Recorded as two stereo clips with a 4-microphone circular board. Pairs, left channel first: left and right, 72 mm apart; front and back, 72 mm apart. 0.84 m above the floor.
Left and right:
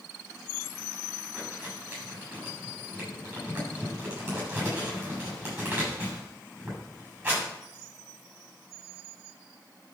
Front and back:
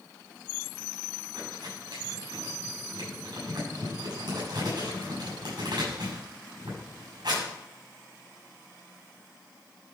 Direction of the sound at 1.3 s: 165° right.